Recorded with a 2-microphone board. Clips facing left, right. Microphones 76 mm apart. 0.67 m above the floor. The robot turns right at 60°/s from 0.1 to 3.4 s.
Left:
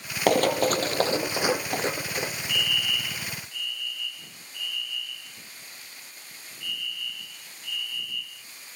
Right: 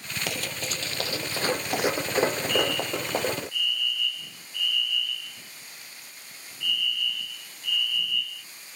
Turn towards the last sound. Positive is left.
turn(degrees=-120)